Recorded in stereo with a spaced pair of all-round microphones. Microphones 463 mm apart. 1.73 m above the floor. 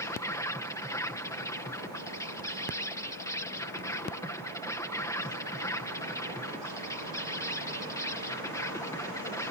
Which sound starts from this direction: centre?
An insect, at 0.0 s.